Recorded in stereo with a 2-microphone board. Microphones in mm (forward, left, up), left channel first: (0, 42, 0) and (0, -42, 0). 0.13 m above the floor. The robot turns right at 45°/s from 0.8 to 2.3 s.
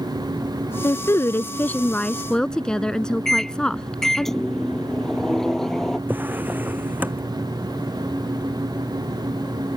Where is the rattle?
No rattle in this recording.